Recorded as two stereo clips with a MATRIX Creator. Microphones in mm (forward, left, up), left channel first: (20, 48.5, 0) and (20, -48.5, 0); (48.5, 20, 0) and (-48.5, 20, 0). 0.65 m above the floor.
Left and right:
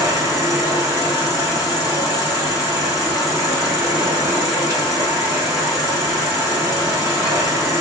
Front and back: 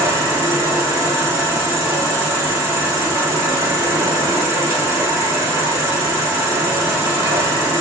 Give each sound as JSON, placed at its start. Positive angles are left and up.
{"t": 0.0, "sound": "an insect", "azimuth_deg": -140, "distance_m": 2.5}